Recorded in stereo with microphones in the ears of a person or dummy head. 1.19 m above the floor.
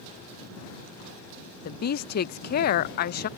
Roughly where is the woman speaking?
Left.